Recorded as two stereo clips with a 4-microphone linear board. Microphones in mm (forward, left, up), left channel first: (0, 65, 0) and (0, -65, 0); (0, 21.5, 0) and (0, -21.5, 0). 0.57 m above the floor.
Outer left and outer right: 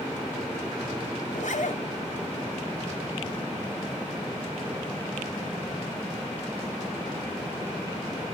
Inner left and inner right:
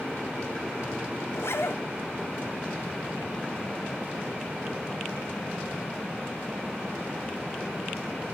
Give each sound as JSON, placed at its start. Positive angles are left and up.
{"t": 1.3, "sound": "a zipper", "side_deg": 75, "distance_m": 2.0}